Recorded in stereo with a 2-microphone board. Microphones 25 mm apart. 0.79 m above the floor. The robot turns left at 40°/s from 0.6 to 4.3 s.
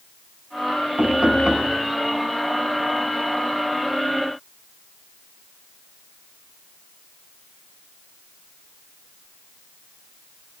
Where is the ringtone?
No ringtone in this recording.